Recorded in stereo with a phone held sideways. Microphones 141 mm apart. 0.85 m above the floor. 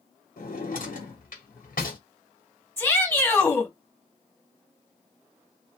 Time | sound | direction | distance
0.4 | a drawer | 85° left | 1.6 m
2.8 | a shout | 15° left (ahead or behind) | 1.9 m